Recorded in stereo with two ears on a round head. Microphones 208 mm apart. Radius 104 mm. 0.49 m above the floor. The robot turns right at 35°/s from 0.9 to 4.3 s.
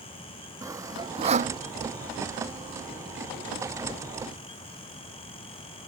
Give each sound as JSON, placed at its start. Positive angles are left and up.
{"t": 0.6, "sound": "sawing", "side_deg": -15}